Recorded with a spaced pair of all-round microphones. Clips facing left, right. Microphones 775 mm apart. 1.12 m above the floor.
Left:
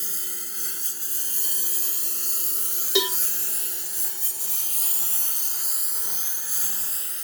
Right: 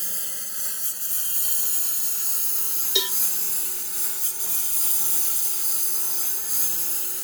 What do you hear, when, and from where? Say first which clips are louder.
0.0 s a lawn mower: left 3 dB; 10° right (ahead or behind); by 7.2 s 70° right (ahead or behind)
3.0 s a cowbell: left 7 dB; 75° left (ahead or behind)